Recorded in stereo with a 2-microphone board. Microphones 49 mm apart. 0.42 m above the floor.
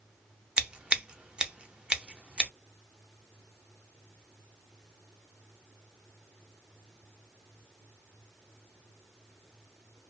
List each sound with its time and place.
0.6 s scissors: 20° right (ahead or behind), 0.6 m